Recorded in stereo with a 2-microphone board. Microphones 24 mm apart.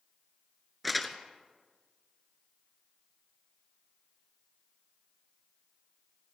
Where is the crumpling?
Centre (ahead or behind), 1.1 m.